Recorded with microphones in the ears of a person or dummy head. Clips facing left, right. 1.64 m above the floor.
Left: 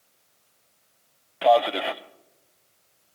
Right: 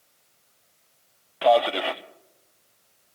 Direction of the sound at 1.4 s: Centre (ahead or behind).